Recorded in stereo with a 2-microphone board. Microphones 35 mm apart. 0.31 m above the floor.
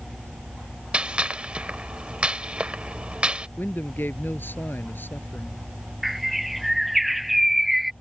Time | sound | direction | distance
0.9 | a gunshot | 35° right (ahead or behind) | ?
3.6 | a man speaking | 80° left | ?
6.0 | a bird | 5° right (ahead or behind) | ?